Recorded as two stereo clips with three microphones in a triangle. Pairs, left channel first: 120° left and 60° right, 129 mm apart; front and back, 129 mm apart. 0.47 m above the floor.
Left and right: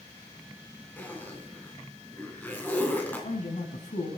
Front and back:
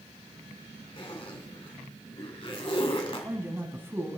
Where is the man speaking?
110° left, 3 m.